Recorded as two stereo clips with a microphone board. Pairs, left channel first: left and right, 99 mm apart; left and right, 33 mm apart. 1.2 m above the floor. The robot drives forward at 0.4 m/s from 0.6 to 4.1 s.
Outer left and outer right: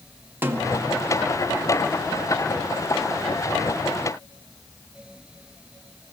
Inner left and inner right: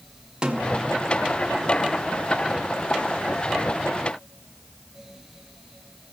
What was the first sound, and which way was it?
A snare drum, 25° right (ahead or behind).